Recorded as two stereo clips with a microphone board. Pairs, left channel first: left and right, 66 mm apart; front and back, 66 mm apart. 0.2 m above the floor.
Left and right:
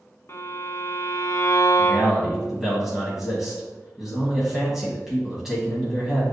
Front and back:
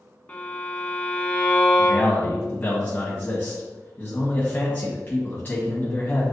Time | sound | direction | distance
0.3 | a violin | 55° left | 0.7 m
1.8 | a man speaking | 10° right | 1.5 m